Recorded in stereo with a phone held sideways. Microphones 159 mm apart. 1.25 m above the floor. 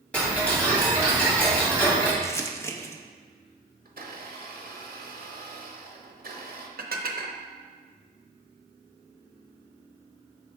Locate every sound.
0.1 s ticking: 10° left (ahead or behind), 1.7 m
2.2 s crumpling: 15° left (ahead or behind), 0.5 m
3.9 s a blender: 65° right (ahead or behind), 0.8 m
6.8 s dishes clattering: 70° right (ahead or behind), 0.7 m